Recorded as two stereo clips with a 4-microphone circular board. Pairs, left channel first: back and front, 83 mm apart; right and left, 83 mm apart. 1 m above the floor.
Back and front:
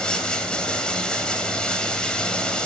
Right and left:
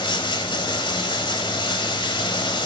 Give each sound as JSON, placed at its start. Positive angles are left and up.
{"t": 0.0, "sound": "running water", "azimuth_deg": -100, "distance_m": 1.9}